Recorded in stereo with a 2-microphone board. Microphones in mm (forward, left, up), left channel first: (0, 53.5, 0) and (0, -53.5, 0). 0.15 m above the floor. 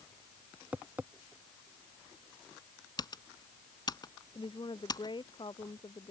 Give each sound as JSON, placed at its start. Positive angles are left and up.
{"t": 0.7, "sound": "tapping", "side_deg": -15}
{"t": 3.0, "sound": "typing on a keyboard", "side_deg": 40}
{"t": 4.3, "sound": "a woman speaking", "side_deg": 45}